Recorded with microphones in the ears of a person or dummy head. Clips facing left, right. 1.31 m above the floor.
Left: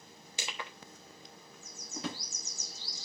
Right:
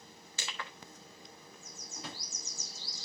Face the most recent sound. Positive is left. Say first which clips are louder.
# left 8 dB
turn(degrees=60)  # may be behind; listen again after turning